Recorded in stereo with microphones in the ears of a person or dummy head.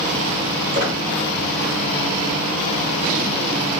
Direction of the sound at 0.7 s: 45° right (ahead or behind).